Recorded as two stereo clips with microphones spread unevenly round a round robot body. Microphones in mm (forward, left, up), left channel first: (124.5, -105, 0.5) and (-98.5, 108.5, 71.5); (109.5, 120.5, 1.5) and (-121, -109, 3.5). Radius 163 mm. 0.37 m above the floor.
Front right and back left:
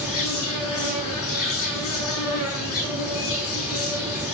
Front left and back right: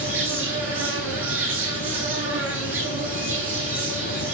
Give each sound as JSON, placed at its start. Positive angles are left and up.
{"t": 0.0, "sound": "an insect", "azimuth_deg": -80, "distance_m": 8.0}